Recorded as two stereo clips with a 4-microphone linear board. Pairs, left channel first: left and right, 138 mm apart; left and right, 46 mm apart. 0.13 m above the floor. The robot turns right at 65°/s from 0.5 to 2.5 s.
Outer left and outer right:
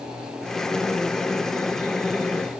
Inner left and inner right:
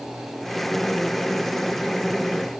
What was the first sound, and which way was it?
Only background noise.